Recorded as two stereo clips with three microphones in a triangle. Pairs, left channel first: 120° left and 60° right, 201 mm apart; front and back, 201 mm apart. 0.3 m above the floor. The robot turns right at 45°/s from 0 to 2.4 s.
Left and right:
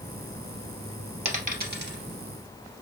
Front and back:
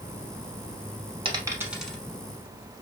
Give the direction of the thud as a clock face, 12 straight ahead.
I don't hear a thud.